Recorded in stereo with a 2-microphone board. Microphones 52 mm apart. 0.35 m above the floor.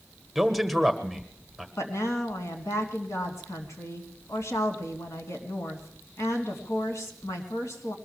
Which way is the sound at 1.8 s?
75° left (ahead or behind).